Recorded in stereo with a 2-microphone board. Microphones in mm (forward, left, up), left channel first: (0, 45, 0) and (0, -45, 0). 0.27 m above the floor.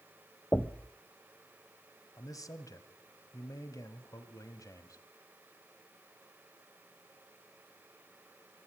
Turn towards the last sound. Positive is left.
turn(degrees=40)  # may be behind; listen again after turning